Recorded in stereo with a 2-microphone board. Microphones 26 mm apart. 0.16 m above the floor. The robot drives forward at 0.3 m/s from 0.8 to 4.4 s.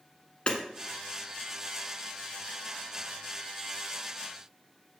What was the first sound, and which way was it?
Hammering, 40° left (ahead or behind).